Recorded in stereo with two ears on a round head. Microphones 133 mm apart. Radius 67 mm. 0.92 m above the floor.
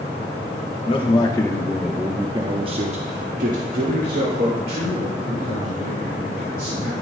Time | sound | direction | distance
0.8 | a man speaking | 35° left (ahead or behind) | 1.1 m